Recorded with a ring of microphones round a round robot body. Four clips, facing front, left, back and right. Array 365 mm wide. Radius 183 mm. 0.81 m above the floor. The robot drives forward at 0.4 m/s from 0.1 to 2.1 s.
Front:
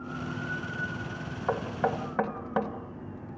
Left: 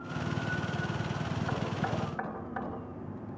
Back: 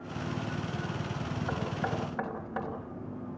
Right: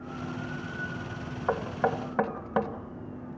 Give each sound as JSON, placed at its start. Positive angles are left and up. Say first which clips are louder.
{"t": 1.5, "sound": "knocking", "louder": "right 9 dB, front 7 dB", "azimuth_deg": -60, "distance_m": 2.5}